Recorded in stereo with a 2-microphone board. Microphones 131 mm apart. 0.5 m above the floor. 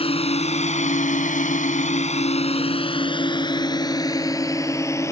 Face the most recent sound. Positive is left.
turn(degrees=20)  # may be behind; listen again after turning